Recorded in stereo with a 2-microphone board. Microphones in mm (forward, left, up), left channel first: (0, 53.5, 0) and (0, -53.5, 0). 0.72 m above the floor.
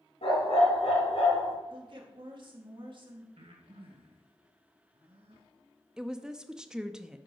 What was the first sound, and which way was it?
A dog barking, 75° left (ahead or behind).